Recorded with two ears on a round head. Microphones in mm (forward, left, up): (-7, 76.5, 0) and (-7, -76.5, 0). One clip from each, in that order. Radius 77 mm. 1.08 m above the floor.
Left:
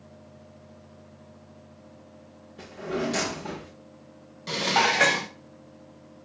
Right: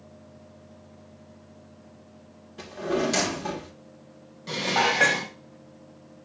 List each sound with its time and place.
2.6 s a drawer: 45° right (ahead or behind), 1.4 m
4.5 s dishes clattering: 25° left (ahead or behind), 0.5 m